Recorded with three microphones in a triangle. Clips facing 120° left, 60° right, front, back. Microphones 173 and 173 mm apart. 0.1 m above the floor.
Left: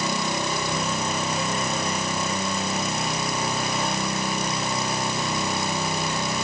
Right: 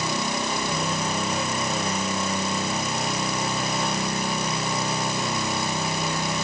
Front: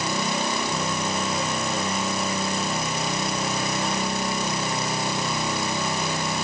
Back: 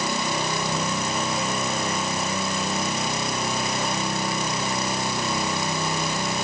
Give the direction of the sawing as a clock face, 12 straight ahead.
I don't hear sawing.